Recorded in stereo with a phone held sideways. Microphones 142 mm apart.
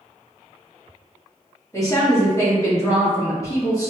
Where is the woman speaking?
25° left (ahead or behind), 1.6 m.